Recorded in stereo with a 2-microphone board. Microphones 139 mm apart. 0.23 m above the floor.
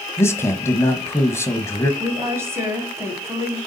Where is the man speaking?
20° left (ahead or behind), 1.2 m.